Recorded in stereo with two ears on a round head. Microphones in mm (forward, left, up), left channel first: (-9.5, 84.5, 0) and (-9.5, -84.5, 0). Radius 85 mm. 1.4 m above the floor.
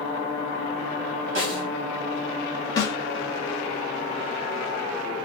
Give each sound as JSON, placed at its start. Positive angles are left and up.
{"t": 1.4, "sound": "a snare drum", "side_deg": -75, "distance_m": 1.6}
{"t": 2.8, "sound": "a snare drum", "side_deg": 20, "distance_m": 1.1}